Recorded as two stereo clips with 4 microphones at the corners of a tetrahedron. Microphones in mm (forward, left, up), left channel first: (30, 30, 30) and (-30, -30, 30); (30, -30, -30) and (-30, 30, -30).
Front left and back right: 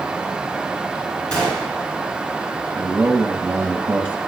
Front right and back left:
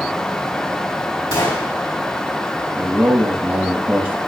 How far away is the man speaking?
About 1.0 m.